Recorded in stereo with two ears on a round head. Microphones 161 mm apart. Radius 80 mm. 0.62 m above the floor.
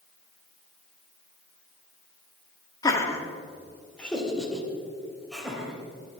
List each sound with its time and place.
2.8 s laughter: 20° left (ahead or behind), 1.6 m; by 6.2 s 5° right (ahead or behind), 4.5 m